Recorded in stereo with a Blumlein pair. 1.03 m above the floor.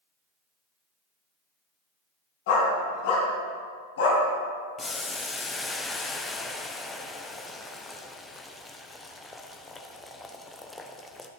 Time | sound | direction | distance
2.5 | a dog barking | 50° left | 3.5 m
4.8 | boiling | 10° left | 0.8 m